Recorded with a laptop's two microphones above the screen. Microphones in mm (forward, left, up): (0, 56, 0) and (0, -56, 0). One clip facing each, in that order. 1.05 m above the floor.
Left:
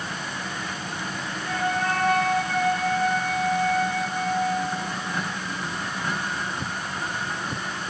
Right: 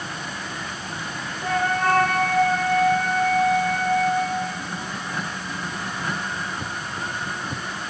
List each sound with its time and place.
1.4 s a flute: 65° right (ahead or behind), 1.3 m